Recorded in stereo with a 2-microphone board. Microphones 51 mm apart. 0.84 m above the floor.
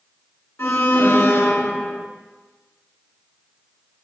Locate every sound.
0.6 s an alarm: 60° left (ahead or behind), 6.5 m